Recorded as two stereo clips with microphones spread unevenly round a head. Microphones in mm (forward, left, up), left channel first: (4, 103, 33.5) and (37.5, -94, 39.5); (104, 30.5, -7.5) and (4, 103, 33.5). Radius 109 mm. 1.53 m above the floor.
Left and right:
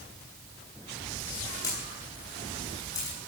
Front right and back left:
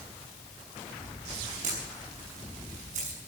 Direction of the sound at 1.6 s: 175° left.